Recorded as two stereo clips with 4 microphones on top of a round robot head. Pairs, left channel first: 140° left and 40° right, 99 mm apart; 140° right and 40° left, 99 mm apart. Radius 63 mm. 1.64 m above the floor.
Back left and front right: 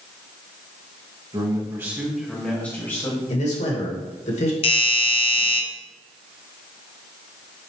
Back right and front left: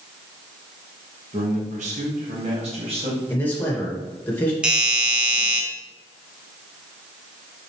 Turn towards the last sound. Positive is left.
turn(degrees=120)